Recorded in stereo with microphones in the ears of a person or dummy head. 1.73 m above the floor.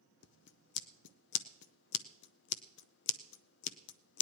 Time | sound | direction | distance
0.2 | scissors | 65° left (ahead or behind) | 0.6 m